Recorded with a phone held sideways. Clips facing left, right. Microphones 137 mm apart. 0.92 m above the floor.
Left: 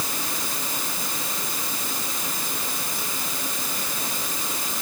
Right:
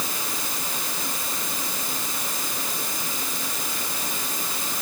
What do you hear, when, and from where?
Only background noise.